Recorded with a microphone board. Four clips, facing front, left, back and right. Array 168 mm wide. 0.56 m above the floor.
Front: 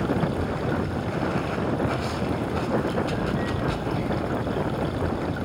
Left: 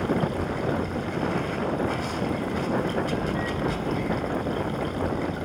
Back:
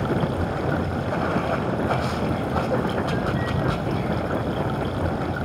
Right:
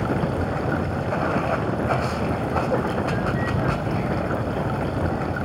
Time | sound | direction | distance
0.0 | running water | 125° right | 3 m